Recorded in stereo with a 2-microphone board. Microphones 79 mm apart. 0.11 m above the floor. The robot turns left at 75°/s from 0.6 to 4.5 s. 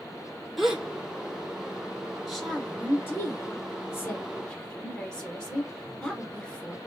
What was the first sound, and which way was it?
A gasp, centre (ahead or behind).